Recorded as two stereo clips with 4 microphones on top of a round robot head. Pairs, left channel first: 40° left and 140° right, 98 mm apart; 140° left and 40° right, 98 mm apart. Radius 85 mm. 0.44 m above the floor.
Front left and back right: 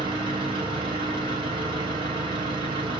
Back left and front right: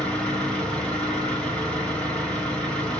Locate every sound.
0.0 s an engine running: 140° right, 1.8 m